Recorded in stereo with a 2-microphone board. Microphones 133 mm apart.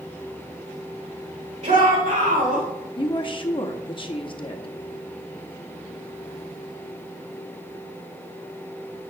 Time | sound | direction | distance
1.6 | a shout | 65° right (ahead or behind) | 1.8 m
3.0 | a woman speaking | 35° left (ahead or behind) | 0.8 m